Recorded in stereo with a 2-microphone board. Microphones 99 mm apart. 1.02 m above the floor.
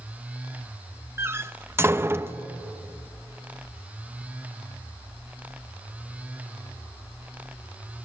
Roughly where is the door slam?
Right.